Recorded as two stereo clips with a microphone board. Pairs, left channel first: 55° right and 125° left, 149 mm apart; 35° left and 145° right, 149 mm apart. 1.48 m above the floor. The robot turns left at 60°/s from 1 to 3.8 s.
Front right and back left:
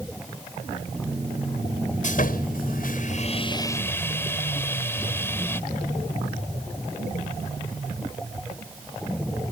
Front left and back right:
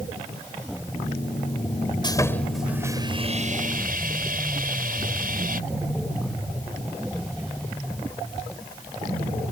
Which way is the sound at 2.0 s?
25° right.